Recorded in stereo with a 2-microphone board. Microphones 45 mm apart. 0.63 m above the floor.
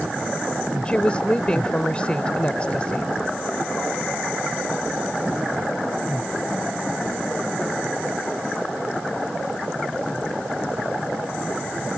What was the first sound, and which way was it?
A woman speaking, 25° left (ahead or behind).